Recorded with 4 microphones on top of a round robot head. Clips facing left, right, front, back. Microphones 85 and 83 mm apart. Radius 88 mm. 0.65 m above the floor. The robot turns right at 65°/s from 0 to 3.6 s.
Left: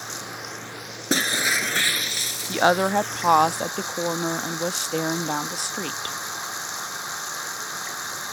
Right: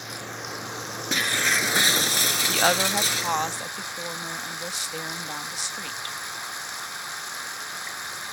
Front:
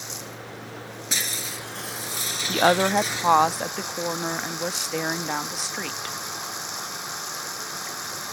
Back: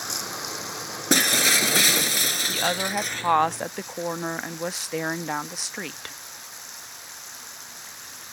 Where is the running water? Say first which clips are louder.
Left 1 dB, back 4 dB; 150° left; by 8.3 s 25° left.